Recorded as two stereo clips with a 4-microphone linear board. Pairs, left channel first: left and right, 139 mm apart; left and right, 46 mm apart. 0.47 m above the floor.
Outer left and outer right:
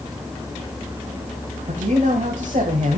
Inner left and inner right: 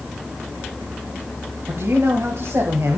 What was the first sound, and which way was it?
A man speaking, 65° right (ahead or behind).